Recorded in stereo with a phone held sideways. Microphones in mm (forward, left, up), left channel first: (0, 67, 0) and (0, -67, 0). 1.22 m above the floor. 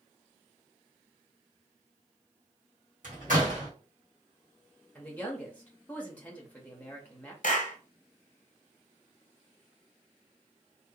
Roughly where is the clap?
Left.